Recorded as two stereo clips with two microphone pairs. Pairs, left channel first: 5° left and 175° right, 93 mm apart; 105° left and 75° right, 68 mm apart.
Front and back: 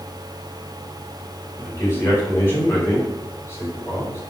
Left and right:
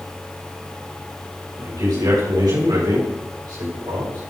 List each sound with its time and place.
1.6 s a man speaking: 60° right, 5.5 m